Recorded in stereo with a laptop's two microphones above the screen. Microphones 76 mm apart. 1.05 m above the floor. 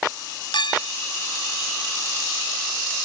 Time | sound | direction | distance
0.5 | a clink | 80° left | ?